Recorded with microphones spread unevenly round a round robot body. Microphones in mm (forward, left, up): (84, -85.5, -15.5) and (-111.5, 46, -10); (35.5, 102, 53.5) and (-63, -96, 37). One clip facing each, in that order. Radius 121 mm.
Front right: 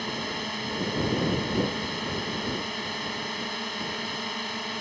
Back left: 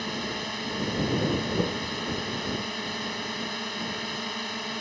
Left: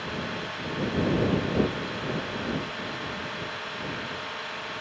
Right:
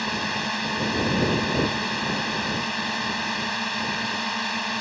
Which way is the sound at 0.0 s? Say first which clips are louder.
Even, right 4 dB; 125° right.